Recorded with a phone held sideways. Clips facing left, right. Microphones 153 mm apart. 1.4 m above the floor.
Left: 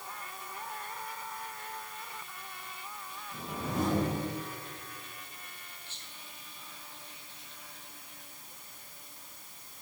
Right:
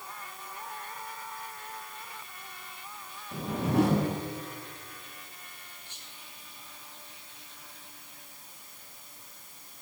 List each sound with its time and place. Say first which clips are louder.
3.3 s a whoosh: right 9 dB; 70° right (ahead or behind), 1.3 m
5.9 s whispering: even; 15° right (ahead or behind), 3 m